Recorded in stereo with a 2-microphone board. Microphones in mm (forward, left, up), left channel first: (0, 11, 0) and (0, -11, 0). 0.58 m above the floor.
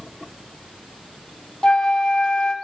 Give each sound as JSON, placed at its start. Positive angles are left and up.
{"t": 1.6, "sound": "a flute", "side_deg": 40, "distance_m": 1.5}